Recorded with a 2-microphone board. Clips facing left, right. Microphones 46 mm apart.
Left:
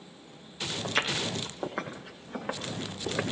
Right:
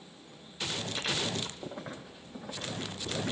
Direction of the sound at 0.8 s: 80° left.